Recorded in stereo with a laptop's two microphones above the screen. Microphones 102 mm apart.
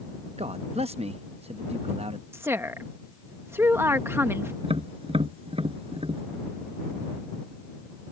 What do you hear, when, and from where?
0.4 s a man speaking: 70° right (ahead or behind)
2.3 s a woman speaking: 20° right (ahead or behind)
4.6 s tapping: 60° right (ahead or behind)